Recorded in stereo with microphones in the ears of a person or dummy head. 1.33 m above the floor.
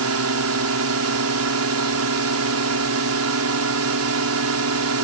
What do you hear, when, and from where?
0.0 s a drone: 70° right (ahead or behind)